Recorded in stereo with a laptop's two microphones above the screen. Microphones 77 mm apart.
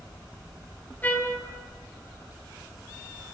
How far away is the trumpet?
About 0.9 m.